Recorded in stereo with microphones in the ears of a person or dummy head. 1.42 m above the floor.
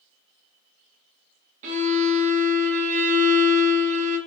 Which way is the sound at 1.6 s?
40° right (ahead or behind).